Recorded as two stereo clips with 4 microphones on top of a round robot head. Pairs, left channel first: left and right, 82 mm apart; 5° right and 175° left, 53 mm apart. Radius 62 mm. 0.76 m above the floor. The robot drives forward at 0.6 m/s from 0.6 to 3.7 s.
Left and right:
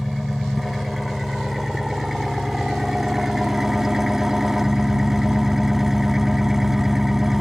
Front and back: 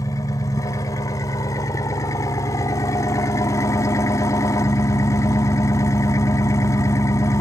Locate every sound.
0.0 s an engine running: straight ahead; by 7.4 s 5° right